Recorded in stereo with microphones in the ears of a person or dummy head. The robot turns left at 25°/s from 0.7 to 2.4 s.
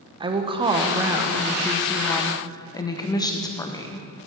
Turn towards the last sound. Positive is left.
turn(degrees=165)